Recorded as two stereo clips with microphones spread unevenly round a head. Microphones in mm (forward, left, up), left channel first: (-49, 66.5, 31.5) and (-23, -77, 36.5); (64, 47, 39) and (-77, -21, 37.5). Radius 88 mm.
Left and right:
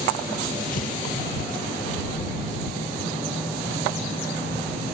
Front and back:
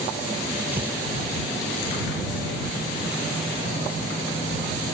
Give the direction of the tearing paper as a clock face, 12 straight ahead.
8 o'clock.